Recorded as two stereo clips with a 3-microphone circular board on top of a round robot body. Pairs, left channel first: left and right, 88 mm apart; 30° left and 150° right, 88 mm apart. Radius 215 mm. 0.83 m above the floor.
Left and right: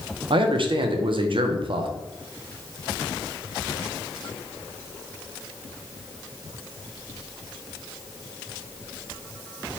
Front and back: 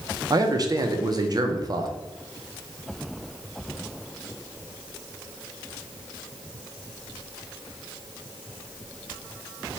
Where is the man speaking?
105° right, 0.6 m.